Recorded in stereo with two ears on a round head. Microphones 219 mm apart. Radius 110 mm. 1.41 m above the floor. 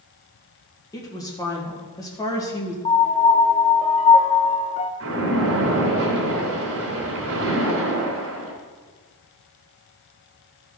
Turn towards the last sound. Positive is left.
turn(degrees=-60)  # may be behind; listen again after turning